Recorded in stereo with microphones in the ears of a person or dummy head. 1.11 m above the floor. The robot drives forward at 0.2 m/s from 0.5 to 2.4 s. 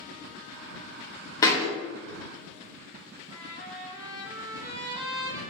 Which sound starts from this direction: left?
A thud, at 1.4 s.